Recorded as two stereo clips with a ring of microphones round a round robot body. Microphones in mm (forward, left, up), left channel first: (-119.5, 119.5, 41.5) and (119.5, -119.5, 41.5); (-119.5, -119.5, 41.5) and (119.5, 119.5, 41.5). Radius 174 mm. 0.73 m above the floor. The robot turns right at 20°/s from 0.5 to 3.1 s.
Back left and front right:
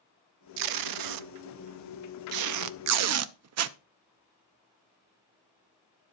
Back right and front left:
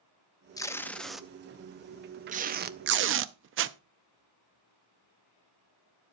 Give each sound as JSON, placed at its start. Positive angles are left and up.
{"t": 0.6, "sound": "tape being pulled", "azimuth_deg": -55, "distance_m": 0.6}